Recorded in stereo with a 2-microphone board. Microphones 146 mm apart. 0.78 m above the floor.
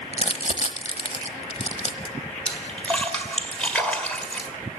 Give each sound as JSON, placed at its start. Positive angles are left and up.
{"t": 0.1, "sound": "crumpling", "side_deg": 45, "distance_m": 1.1}
{"t": 2.5, "sound": "a splash", "side_deg": 10, "distance_m": 1.7}